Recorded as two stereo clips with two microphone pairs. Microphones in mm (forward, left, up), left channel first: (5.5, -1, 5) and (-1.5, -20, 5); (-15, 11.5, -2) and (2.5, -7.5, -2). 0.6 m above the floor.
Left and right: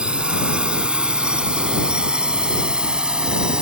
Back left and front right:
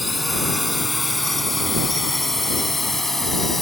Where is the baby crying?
I don't hear a baby crying.